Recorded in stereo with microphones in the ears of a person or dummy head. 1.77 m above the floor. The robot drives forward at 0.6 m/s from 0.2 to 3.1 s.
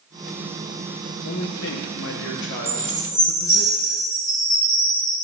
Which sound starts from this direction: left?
A man speaking, at 1.2 s.